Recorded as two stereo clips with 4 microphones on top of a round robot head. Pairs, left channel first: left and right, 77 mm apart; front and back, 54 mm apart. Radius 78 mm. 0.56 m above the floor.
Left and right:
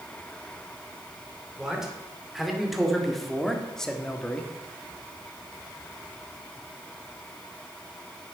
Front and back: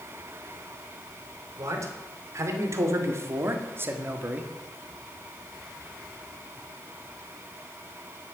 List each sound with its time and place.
1.6 s a man speaking: 175° right, 2.5 m; by 4.5 s 155° left, 1.4 m